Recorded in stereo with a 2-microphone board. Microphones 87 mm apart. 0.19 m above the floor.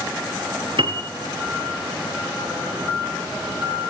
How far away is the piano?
About 1.4 m.